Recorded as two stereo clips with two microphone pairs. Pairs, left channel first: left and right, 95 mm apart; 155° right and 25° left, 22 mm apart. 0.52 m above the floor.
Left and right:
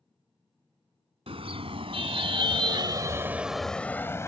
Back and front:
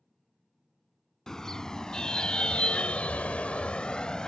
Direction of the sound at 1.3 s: 95° right.